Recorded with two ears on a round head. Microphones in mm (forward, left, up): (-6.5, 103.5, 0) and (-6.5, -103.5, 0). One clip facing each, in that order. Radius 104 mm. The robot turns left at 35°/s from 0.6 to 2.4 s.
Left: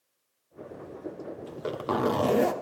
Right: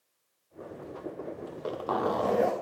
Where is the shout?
I don't hear a shout.